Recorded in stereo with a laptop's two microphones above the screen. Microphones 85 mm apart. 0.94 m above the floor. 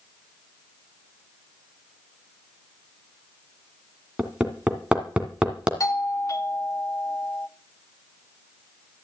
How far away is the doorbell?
About 1.4 m.